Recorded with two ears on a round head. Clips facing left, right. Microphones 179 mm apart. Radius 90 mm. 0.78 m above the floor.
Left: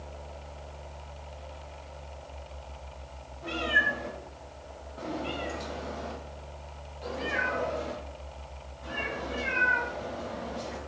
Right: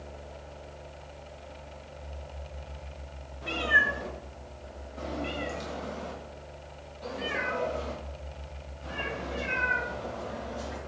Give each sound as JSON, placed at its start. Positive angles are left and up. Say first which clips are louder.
{"t": 3.4, "sound": "a cat meowing", "louder": "even", "side_deg": -90, "distance_m": 1.8}